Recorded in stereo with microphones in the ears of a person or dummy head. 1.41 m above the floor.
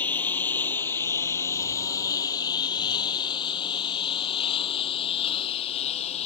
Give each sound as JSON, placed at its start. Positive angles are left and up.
{"t": 0.0, "sound": "a lawn mower", "side_deg": 15}